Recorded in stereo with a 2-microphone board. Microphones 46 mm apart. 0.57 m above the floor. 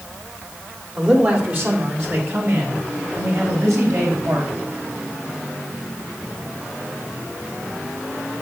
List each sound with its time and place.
1.0 s a man speaking: 30° right (ahead or behind), 1.6 m; by 4.5 s 75° right (ahead or behind), 4 m